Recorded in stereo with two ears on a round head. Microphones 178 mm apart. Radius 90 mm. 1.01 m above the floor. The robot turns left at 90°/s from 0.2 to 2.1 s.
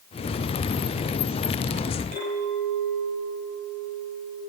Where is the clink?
50° right (ahead or behind), 4.5 m.